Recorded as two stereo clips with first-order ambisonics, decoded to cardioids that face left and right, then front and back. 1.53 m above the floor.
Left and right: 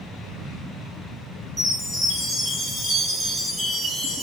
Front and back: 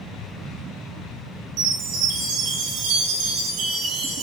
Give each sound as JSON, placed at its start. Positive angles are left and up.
{"t": 1.6, "sound": "a chime", "azimuth_deg": -170, "distance_m": 6.0}